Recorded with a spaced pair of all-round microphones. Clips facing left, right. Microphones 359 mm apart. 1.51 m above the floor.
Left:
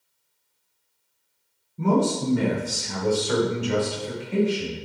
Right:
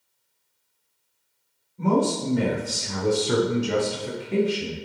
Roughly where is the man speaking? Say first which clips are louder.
Even; left.